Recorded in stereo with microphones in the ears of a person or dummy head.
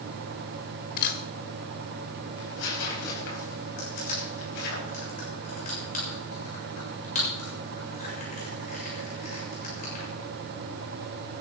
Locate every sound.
1.0 s a camera shutter: 50° left (ahead or behind), 1.5 m
2.4 s tearing paper: 65° left (ahead or behind), 4.5 m
3.8 s crushing: 45° left (ahead or behind), 6.5 m